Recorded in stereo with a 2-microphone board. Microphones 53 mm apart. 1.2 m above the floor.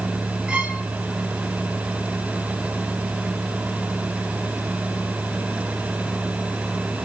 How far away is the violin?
About 1.5 m.